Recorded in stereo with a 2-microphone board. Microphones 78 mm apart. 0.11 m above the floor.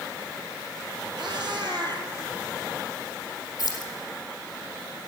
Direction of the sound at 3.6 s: 50° left (ahead or behind).